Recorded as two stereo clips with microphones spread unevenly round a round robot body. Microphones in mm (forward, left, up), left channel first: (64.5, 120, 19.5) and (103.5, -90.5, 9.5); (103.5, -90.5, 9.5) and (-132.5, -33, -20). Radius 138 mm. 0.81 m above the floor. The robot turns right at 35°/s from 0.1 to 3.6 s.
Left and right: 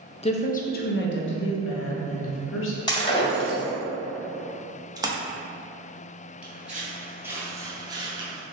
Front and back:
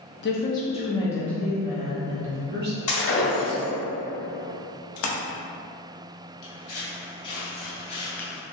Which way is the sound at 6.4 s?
5° left.